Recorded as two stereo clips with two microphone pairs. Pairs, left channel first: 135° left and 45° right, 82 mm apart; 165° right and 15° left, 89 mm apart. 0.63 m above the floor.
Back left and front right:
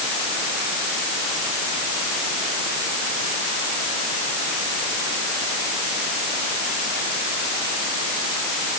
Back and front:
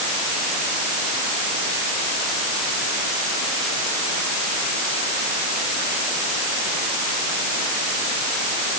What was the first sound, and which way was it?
Only background noise.